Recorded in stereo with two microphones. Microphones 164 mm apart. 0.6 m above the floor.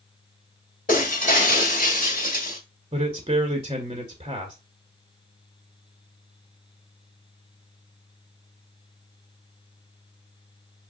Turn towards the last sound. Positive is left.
turn(degrees=-35)  # may be behind; listen again after turning